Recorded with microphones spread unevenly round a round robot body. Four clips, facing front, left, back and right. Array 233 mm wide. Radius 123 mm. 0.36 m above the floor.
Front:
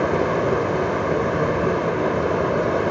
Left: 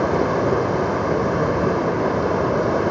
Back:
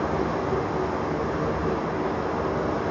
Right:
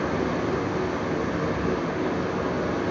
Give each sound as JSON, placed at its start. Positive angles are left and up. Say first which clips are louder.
{"t": 0.0, "sound": "running water", "louder": "left 7 dB, front 6 dB", "azimuth_deg": 55, "distance_m": 1.3}